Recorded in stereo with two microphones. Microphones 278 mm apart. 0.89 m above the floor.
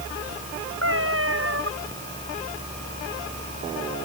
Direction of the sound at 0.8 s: 50° right (ahead or behind).